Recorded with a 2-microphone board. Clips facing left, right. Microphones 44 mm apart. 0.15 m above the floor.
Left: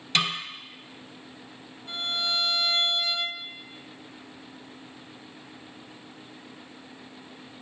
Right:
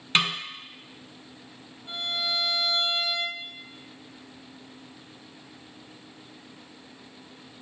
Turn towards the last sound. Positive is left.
turn(degrees=-30)  # may be behind; listen again after turning